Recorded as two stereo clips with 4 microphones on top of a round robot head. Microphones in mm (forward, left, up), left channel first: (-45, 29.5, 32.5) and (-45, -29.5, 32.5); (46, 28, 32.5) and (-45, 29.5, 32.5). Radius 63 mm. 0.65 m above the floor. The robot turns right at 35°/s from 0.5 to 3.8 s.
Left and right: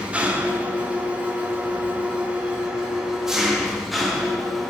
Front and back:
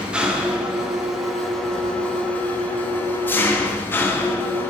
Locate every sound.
0.0 s an engine running: 120° right, 0.9 m; by 4.7 s 5° right, 0.9 m